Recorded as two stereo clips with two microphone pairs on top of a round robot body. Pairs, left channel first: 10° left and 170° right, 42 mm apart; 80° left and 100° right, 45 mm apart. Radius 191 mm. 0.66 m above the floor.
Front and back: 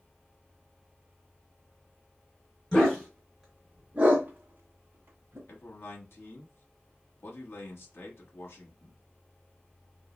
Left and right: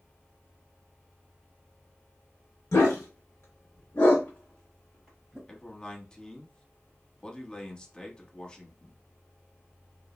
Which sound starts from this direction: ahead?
A man speaking, at 5.5 s.